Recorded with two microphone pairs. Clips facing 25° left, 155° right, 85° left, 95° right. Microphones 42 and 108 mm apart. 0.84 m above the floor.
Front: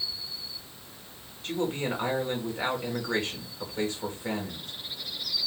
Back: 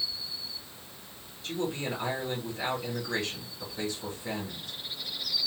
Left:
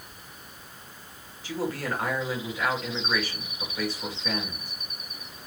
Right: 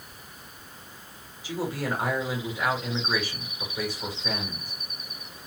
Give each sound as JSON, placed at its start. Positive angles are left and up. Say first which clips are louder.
{"t": 1.4, "sound": "a man speaking", "louder": "front 3 dB, even", "azimuth_deg": -20, "distance_m": 2.5}